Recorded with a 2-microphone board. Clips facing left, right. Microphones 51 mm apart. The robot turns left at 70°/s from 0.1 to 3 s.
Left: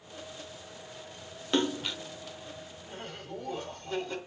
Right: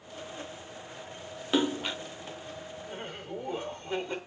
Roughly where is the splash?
Ahead.